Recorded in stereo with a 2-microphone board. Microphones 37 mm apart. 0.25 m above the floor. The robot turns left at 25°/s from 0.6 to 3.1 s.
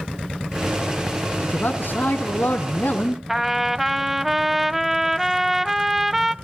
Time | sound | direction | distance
1.4 | a man speaking | 105° left | 2.5 m
3.3 | a trumpet | 5° right (ahead or behind) | 0.6 m